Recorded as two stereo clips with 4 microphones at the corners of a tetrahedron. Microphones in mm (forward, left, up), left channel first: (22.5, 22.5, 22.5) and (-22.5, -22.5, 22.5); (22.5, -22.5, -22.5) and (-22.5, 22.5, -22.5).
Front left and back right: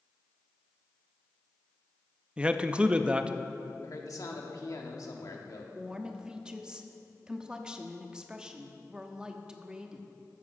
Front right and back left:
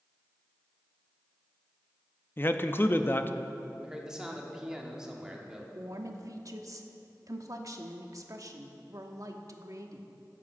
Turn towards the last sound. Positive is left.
turn(degrees=150)